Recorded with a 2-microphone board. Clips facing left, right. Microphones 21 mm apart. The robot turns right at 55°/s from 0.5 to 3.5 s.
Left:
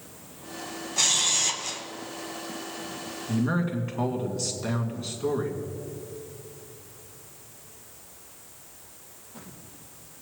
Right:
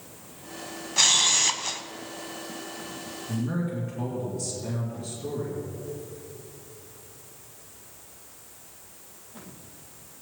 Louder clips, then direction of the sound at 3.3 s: Left 3 dB; 45° left (ahead or behind).